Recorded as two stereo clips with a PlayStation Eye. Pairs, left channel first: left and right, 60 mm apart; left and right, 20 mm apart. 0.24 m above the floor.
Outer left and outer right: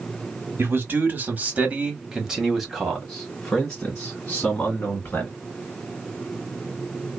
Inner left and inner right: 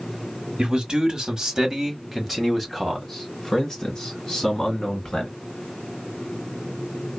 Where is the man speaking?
40° right (ahead or behind), 1.3 m; by 5.3 s 30° left (ahead or behind), 2 m.